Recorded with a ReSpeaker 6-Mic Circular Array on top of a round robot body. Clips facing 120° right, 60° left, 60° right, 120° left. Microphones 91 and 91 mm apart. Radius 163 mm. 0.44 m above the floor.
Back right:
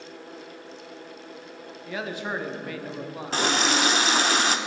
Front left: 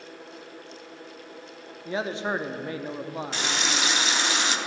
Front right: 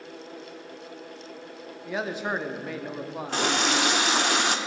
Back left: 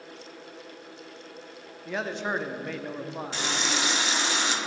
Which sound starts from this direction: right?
A running tap, at 3.3 s.